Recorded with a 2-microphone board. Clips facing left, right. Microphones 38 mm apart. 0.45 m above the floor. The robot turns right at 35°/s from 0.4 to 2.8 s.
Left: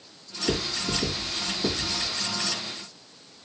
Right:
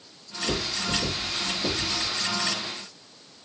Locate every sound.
0.5 s writing: 35° left (ahead or behind), 1.7 m; by 2.1 s 5° left (ahead or behind), 1.7 m